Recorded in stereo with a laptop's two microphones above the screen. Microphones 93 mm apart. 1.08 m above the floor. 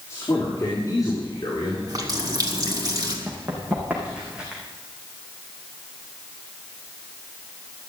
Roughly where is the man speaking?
Left.